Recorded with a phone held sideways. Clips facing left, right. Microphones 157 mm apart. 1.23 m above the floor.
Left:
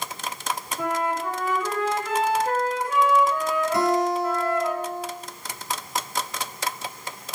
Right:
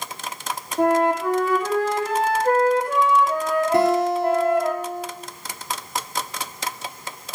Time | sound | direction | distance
0.8 | a flute | 65° right (ahead or behind) | 2.0 m
3.7 | a guitar | 65° right (ahead or behind) | 2.5 m